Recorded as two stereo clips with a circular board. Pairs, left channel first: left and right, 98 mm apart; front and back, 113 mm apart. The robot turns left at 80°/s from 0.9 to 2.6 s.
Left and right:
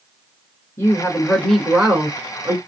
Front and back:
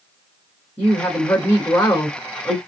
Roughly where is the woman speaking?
Ahead left.